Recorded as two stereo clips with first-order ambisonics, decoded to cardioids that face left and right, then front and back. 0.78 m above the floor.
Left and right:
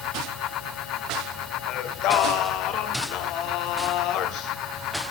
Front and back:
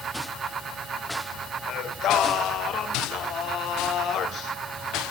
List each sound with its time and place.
1.7 s singing: 50° left, 2 m